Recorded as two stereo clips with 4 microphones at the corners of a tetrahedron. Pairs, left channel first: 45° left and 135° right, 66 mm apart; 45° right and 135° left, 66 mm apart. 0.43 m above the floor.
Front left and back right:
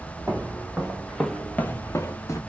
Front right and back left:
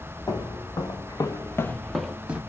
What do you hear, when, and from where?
0.3 s footsteps: 65° right, 1.2 m; by 2.4 s 70° left, 0.7 m